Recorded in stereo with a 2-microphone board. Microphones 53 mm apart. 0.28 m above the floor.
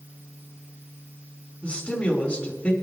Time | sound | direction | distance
1.6 | a man speaking | 25° left (ahead or behind) | 3 m